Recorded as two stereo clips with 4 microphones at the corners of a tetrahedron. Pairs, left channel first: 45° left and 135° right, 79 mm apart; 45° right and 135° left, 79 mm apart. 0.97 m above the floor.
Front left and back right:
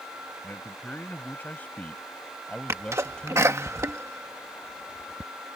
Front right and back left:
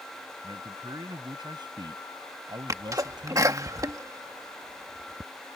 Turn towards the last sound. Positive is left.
turn(degrees=175)